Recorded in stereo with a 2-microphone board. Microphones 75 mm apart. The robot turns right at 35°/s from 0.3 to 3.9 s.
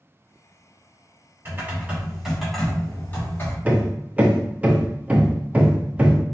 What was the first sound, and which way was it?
Typing on a keyboard, 35° right.